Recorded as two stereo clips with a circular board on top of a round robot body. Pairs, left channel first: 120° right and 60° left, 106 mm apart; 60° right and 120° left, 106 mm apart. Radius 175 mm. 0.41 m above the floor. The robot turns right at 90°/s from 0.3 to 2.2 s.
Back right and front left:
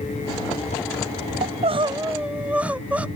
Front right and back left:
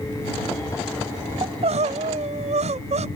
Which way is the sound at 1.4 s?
70° left.